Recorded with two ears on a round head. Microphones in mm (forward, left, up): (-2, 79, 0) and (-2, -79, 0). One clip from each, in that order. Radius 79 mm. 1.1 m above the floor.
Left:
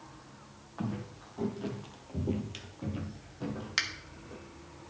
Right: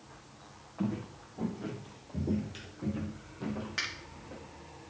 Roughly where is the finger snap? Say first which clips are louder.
Left 4 dB; left.